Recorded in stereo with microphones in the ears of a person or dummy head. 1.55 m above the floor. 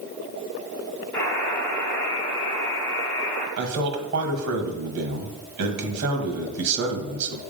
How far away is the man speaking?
About 1.4 m.